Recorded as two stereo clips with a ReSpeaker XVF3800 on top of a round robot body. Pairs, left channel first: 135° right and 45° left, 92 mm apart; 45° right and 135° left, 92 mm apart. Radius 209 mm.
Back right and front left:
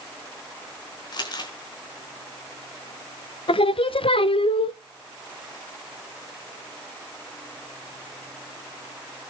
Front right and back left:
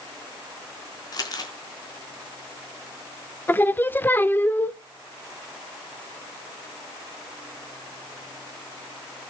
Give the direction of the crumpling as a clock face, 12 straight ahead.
3 o'clock.